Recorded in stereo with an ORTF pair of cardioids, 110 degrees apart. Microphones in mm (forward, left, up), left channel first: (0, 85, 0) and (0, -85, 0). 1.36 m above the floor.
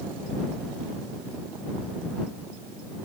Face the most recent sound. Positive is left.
No sound to turn to.